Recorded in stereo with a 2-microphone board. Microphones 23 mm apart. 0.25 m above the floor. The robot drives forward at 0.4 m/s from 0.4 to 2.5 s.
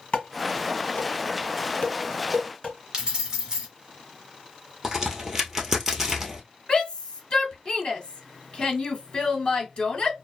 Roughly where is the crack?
Centre.